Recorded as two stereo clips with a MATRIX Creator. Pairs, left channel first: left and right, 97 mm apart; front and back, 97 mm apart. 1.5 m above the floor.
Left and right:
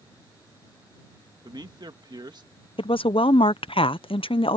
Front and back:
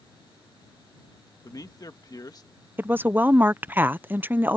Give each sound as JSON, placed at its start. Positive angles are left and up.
{"t": 1.4, "sound": "a man speaking", "azimuth_deg": -50}
{"t": 2.8, "sound": "a woman speaking", "azimuth_deg": 110}